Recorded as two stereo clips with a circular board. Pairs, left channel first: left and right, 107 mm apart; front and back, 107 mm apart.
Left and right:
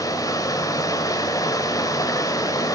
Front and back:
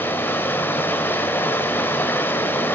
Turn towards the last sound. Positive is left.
turn(degrees=60)